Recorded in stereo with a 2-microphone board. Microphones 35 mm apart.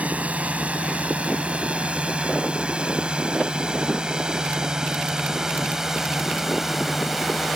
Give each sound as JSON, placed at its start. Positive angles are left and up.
{"t": 0.0, "sound": "a drone", "side_deg": -40}